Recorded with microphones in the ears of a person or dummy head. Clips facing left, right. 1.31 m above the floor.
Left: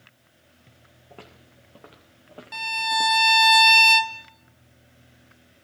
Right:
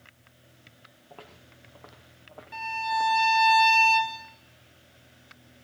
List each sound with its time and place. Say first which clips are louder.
1.1 s footsteps: left 2 dB; 20° left (ahead or behind), 5 m; by 3.3 s 50° left (ahead or behind), 5 m
2.5 s a violin: left 1 dB; 60° left (ahead or behind), 1.5 m